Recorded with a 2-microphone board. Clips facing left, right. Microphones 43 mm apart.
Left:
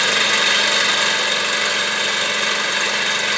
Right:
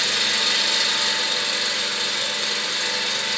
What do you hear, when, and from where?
0.0 s an engine running: 65° left (ahead or behind), 1.1 m